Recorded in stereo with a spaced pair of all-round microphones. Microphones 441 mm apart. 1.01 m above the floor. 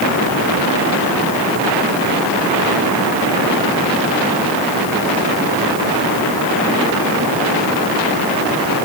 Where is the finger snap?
No finger snap in this recording.